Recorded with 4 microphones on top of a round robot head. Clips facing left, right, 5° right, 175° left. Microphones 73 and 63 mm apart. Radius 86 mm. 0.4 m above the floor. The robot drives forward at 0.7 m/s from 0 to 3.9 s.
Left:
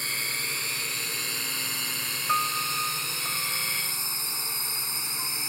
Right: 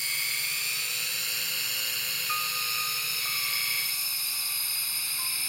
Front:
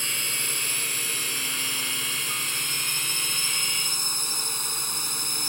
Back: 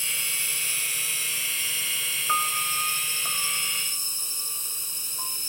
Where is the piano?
145° left; by 5.4 s 165° left.